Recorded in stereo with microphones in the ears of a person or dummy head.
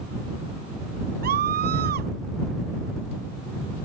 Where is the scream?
50° right (ahead or behind).